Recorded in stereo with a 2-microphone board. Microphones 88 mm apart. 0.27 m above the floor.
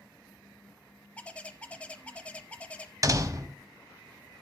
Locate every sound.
1.2 s a bird: 15° left (ahead or behind), 0.6 m
3.0 s a door slam: 40° right (ahead or behind), 0.8 m